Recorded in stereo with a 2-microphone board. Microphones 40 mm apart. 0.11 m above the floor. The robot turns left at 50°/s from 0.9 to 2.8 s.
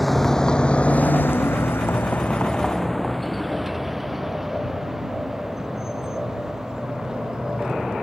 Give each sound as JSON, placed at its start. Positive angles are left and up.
{"t": 0.0, "sound": "a vehicle", "side_deg": 0}